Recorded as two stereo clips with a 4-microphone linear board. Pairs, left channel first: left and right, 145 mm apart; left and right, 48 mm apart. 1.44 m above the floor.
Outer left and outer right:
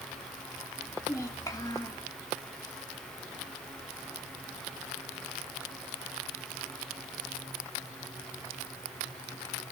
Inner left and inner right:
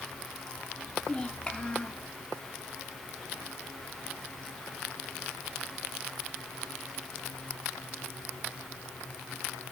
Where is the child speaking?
25° left (ahead or behind), 2.5 m.